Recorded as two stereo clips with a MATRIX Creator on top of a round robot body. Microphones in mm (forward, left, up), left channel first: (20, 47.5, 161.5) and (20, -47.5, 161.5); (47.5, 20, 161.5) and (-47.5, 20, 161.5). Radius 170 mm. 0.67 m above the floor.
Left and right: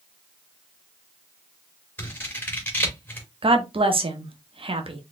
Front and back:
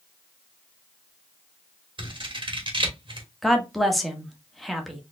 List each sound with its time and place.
2.0 s scissors: 160° left, 1.9 m
3.4 s a woman speaking: 90° right, 1.1 m